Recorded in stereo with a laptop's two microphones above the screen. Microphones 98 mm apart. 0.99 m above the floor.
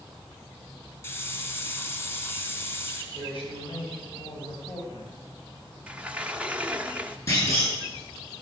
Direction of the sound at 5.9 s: 10° right (ahead or behind).